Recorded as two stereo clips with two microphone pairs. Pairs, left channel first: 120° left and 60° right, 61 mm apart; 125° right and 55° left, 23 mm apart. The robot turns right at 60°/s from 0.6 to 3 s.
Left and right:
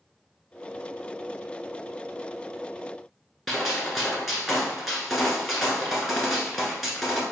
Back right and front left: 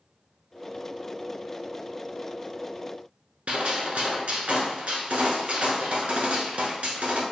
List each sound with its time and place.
3.5 s a gunshot: 30° left, 0.8 m